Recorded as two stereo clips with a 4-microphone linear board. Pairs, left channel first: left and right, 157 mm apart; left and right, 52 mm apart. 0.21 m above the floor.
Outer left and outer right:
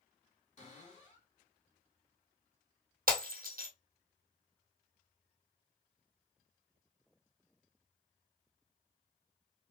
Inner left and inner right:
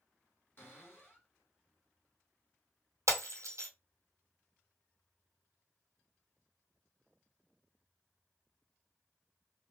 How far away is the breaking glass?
About 1.1 m.